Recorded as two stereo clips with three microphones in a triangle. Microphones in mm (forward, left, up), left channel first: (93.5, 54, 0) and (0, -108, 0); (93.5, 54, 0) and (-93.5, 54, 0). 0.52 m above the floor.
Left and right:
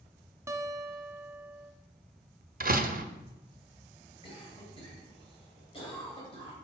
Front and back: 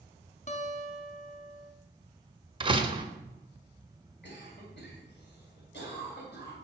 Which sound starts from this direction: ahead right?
A guitar, at 0.5 s.